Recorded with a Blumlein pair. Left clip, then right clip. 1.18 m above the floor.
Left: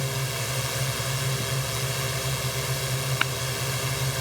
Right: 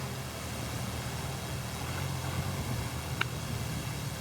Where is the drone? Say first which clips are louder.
Left 10 dB; 30° left.